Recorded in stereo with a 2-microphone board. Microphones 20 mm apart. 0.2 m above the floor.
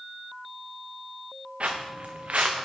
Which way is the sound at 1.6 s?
60° right (ahead or behind).